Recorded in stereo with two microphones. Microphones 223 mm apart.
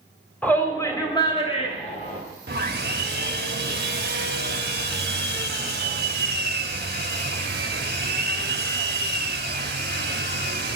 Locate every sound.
0.4 s a shout: 5° left (ahead or behind), 1.9 m; by 2.2 s 35° left (ahead or behind), 2 m
2.5 s sawing: 45° right (ahead or behind), 1.2 m